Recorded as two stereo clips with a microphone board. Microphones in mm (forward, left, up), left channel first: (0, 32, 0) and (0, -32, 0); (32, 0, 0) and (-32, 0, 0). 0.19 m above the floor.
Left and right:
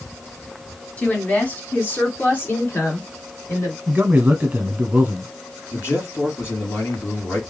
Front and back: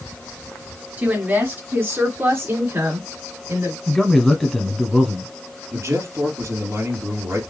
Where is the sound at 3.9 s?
80° right, 1.7 m.